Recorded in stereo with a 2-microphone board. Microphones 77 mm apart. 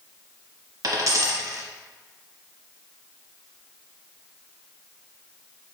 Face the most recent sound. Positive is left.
turn(degrees=-50)  # may be behind; listen again after turning